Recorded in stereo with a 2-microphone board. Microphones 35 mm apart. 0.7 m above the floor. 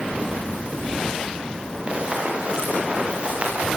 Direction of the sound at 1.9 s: 30° right (ahead or behind).